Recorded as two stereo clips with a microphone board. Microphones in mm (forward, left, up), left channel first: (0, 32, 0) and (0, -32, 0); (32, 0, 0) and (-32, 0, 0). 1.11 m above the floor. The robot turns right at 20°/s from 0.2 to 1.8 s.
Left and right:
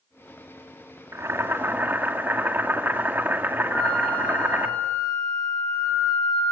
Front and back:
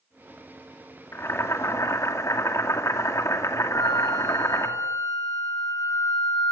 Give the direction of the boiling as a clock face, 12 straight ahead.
2 o'clock.